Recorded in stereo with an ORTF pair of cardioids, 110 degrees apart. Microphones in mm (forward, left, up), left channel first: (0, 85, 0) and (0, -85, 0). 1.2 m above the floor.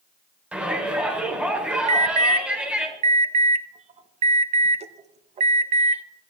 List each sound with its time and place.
0.5 s a shout: 10° right, 3.5 m
1.9 s an alarm: 40° right, 0.9 m